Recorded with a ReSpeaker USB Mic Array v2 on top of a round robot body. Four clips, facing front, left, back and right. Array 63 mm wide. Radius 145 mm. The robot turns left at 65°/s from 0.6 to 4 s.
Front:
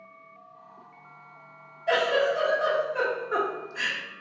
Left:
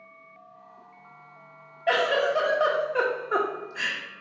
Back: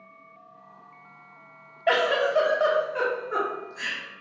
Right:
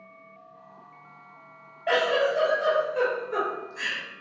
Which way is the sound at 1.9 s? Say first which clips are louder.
Even, back 1 dB; 175° left.